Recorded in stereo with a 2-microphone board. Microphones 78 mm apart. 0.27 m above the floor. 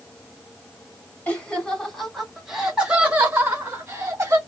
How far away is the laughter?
About 1.5 m.